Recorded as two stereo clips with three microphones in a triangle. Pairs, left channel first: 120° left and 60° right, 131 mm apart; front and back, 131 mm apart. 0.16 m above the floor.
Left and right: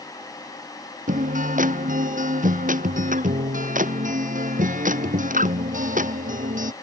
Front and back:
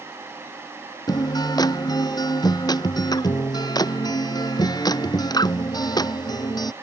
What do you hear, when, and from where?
1.1 s a guitar: 60° right